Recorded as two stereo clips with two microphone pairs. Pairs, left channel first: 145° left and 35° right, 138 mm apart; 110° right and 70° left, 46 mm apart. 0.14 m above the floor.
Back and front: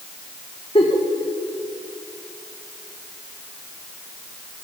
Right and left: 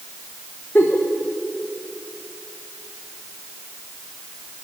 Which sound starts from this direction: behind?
A giggle, at 0.8 s.